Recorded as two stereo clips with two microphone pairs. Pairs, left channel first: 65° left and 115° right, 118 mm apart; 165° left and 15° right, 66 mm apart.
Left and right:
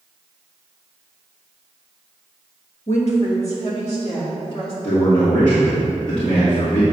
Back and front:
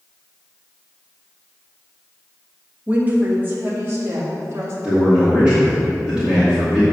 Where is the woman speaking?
55° left, 1.5 m; by 4.7 s 35° left, 3.5 m.